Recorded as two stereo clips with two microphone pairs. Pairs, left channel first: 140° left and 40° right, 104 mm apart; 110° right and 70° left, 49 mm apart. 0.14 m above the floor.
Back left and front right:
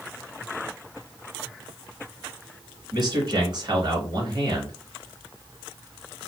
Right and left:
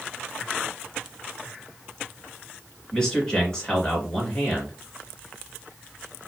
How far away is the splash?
I don't hear a splash.